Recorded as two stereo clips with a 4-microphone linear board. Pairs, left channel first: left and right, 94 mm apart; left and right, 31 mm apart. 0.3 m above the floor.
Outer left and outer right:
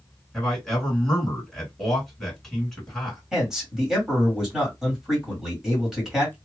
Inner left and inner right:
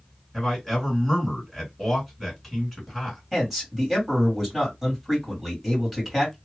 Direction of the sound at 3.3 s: 5° right (ahead or behind).